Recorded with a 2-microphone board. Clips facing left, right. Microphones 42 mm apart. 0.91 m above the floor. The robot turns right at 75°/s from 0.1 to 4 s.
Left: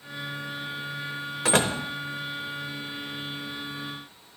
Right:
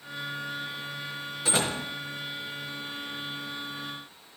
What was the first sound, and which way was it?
A door slam, 65° left (ahead or behind).